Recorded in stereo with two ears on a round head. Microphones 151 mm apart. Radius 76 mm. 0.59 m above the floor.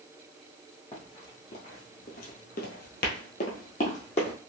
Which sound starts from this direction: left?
Running footsteps, at 0.9 s.